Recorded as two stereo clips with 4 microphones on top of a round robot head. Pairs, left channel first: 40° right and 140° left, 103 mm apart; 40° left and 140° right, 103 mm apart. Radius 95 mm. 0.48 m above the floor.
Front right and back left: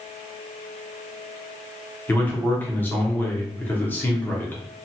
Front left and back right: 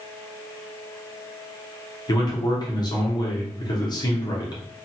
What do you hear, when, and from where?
2.1 s a man speaking: 25° left, 1.1 m